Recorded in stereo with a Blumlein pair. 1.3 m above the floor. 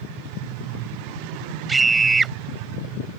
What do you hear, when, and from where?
1.7 s a scream: 10° right